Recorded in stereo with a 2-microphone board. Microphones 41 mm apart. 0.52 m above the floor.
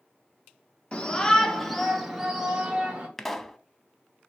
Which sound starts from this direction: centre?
A pop, at 3.2 s.